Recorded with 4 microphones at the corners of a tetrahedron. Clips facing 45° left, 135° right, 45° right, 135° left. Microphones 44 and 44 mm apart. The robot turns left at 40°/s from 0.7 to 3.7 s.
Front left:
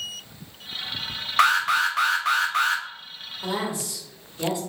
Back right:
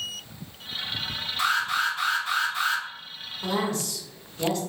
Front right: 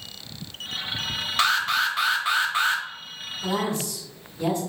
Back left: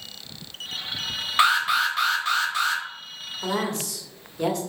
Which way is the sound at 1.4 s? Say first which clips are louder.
Front left 5 dB, back left 2 dB; 65° left.